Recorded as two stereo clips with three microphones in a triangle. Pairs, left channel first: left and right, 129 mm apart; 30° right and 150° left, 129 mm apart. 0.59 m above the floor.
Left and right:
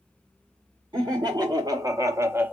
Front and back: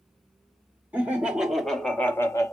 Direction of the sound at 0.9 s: 135° right.